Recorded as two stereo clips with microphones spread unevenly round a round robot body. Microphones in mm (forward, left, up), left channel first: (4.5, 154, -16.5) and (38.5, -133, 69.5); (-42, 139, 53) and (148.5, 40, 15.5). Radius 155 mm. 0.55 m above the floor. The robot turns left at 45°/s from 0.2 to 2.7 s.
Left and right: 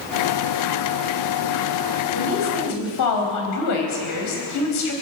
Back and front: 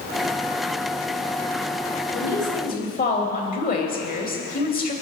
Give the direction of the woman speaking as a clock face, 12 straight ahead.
8 o'clock.